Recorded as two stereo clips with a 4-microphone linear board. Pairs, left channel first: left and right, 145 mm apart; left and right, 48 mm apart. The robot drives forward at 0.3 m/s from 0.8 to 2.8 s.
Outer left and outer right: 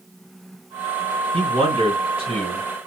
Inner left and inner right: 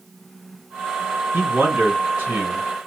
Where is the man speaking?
45° right (ahead or behind), 1.6 m; by 2.7 s 40° right (ahead or behind), 1.7 m.